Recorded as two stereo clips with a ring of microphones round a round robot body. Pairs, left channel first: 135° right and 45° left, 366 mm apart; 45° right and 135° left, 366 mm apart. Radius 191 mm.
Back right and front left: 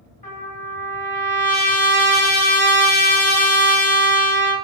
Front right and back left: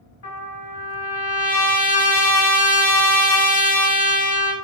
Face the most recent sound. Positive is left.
turn(degrees=-75)